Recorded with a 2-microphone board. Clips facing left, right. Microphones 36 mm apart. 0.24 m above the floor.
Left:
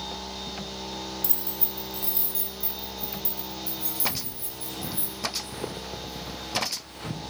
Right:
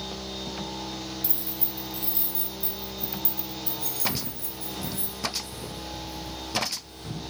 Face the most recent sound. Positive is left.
turn(degrees=65)  # may be behind; listen again after turning